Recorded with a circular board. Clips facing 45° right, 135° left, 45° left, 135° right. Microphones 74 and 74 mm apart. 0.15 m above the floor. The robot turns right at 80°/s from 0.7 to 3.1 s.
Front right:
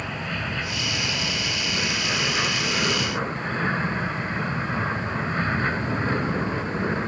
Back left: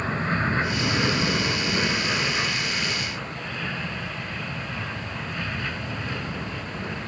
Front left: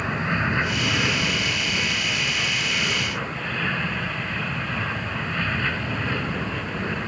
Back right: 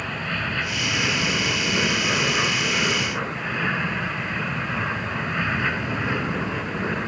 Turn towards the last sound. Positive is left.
turn(degrees=-65)